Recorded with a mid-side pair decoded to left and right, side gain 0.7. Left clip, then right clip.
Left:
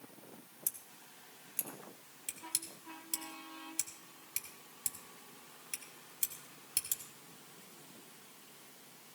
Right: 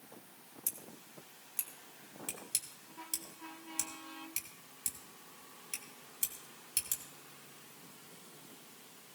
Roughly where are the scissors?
Ahead.